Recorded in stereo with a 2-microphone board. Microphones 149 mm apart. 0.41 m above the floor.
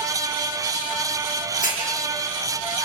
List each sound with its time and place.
1.6 s a hiss: 60° left (ahead or behind), 10 m